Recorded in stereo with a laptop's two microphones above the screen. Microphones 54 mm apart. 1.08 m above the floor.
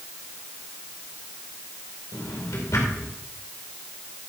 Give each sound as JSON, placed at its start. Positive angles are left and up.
{"t": 2.1, "sound": "a drawer", "side_deg": 65, "distance_m": 2.5}